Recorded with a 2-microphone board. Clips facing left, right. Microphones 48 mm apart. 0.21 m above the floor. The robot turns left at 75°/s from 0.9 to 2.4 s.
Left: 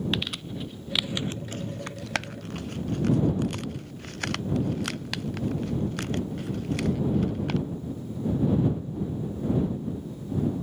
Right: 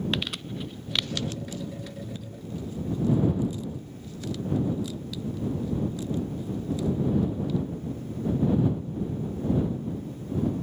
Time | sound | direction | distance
0.1 | crumpling | centre (ahead or behind) | ?